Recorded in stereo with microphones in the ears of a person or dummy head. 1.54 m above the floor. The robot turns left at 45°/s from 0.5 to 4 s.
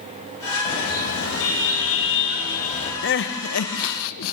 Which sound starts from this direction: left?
Crying, at 3.0 s.